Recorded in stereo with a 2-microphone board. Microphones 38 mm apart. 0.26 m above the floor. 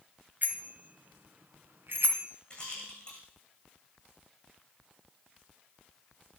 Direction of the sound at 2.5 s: 25° left (ahead or behind).